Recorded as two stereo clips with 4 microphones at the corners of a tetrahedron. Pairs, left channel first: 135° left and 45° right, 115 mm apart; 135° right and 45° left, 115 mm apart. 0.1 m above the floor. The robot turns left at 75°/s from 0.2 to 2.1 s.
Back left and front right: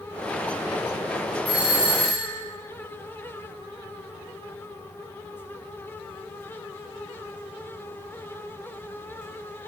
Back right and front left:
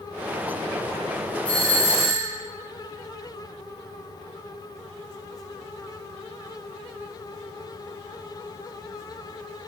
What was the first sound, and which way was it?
A doorbell, 80° right.